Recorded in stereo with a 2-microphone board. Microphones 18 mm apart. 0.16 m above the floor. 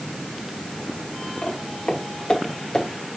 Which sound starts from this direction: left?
Footsteps, at 1.4 s.